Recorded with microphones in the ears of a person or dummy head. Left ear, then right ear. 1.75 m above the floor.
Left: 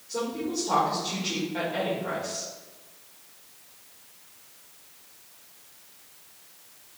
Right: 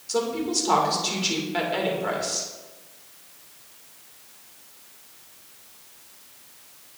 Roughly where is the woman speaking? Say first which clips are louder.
Right 5 dB; right.